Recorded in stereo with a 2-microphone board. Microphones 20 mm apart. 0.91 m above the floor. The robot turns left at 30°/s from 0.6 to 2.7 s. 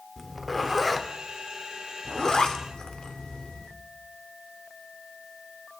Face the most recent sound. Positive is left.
turn(degrees=50)  # may be behind; listen again after turning